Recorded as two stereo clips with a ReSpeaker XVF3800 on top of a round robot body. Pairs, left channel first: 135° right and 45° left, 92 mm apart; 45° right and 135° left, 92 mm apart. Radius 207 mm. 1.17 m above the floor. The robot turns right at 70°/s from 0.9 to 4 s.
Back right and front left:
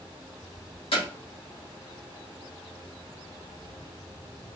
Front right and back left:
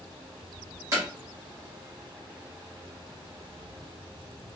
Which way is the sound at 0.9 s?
165° right.